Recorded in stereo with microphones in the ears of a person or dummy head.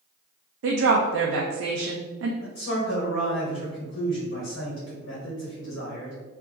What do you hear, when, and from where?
0.6 s a woman speaking: 85° right, 0.5 m
2.4 s a man speaking: 75° left (ahead or behind), 1.8 m